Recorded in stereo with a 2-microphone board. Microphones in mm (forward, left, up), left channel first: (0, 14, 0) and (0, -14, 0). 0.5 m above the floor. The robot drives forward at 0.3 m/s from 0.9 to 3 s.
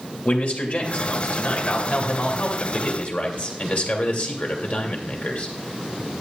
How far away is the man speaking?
About 2 m.